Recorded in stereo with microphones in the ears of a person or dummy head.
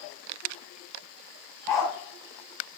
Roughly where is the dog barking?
Centre.